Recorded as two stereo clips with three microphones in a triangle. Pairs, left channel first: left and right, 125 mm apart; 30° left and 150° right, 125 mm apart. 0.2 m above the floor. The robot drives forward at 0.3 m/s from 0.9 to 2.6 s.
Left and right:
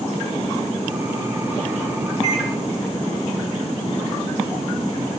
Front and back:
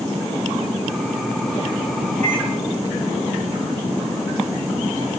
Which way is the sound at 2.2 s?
110° left.